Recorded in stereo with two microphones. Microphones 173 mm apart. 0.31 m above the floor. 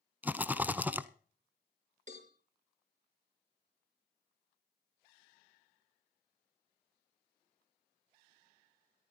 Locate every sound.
0.2 s a rattle: 10° right (ahead or behind), 0.7 m
2.1 s a cowbell: 45° right (ahead or behind), 4 m